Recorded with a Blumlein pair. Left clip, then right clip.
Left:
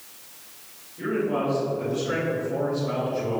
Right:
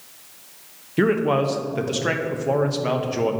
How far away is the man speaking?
About 1.1 m.